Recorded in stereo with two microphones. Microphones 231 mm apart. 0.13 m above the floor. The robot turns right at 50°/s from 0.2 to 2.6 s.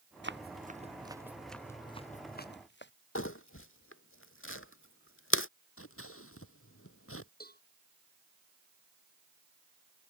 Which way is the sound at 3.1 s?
70° left (ahead or behind).